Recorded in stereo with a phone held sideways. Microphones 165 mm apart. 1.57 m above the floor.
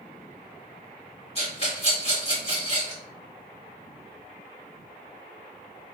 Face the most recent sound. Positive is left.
turn(degrees=35)  # may be behind; listen again after turning